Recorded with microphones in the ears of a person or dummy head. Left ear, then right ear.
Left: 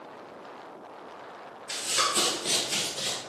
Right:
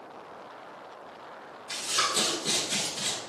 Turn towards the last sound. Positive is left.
turn(degrees=-30)  # may be behind; listen again after turning